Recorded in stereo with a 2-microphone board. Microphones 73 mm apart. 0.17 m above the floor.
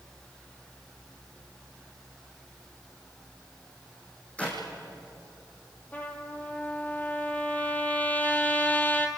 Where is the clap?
15° left (ahead or behind), 6 m.